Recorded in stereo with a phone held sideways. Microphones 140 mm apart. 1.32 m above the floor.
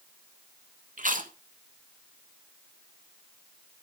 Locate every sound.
1.0 s chewing: 70° right (ahead or behind), 1.9 m